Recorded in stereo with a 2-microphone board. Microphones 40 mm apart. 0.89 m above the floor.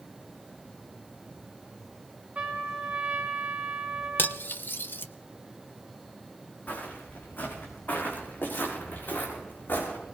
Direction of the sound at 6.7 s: 50° left (ahead or behind).